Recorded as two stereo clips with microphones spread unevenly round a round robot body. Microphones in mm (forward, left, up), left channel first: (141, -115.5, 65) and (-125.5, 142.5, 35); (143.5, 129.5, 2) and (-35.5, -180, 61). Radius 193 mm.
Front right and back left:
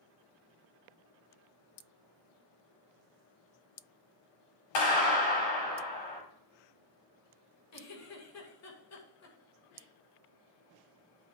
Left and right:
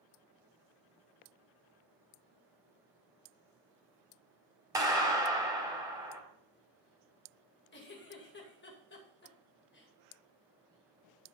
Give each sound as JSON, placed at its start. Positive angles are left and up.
{"t": 4.8, "sound": "a clap", "azimuth_deg": -35, "distance_m": 4.5}
{"t": 7.7, "sound": "a giggle", "azimuth_deg": 5, "distance_m": 2.5}